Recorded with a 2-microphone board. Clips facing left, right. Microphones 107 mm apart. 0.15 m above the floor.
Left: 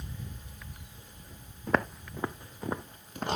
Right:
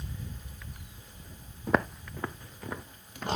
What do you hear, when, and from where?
1.7 s footsteps: 10° right (ahead or behind), 0.6 m; by 3.3 s 40° left (ahead or behind), 1.2 m